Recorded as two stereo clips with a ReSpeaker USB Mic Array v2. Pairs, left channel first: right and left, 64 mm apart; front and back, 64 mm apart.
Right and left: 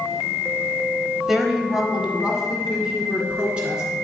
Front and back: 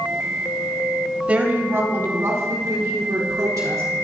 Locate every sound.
1.3 s a woman speaking: 170° left, 1.0 m; by 3.8 s 165° left, 3 m